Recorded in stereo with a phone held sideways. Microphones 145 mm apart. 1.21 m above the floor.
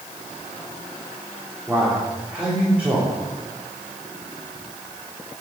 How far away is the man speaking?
About 3.5 m.